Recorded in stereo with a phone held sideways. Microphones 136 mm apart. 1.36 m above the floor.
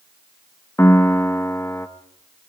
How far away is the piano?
About 1.1 m.